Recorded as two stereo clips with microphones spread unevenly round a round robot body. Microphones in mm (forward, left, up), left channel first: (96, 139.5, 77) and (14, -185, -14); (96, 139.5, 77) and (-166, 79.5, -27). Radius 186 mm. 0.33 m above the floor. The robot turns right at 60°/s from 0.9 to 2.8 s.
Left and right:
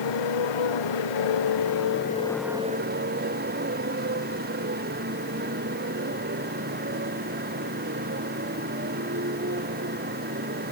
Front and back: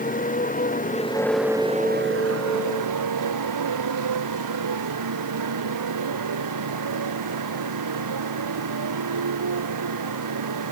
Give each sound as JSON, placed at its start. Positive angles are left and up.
{"t": 0.0, "sound": "a motorcycle", "azimuth_deg": 75}